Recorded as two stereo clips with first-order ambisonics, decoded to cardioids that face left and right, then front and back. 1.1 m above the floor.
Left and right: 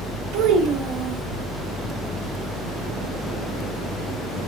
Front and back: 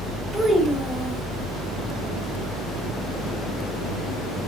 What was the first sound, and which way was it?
A child speaking, 95° right.